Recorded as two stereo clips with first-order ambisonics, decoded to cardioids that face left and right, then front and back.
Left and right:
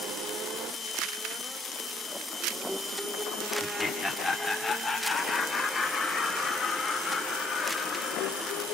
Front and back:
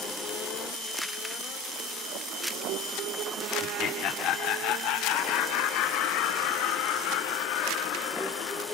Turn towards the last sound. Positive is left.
turn(degrees=10)